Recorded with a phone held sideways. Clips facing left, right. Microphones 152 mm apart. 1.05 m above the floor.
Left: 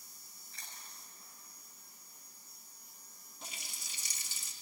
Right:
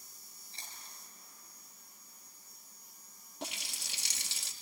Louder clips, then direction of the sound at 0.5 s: Right 1 dB; 30° right (ahead or behind).